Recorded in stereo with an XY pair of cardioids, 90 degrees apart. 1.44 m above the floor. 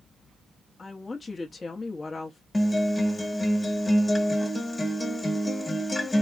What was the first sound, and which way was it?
A woman speaking, 35° left.